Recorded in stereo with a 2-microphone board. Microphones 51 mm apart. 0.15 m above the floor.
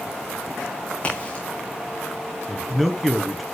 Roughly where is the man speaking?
Centre.